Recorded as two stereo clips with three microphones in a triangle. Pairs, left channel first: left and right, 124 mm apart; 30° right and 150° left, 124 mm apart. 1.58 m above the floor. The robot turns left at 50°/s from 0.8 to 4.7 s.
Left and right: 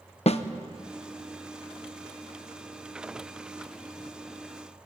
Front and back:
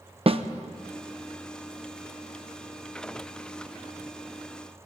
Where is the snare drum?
115° left, 0.9 m.